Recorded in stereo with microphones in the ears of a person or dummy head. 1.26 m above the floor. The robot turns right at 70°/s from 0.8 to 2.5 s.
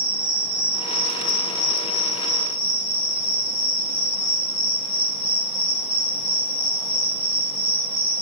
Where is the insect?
15° left, 1.0 m; by 8.2 s 130° left, 1.0 m.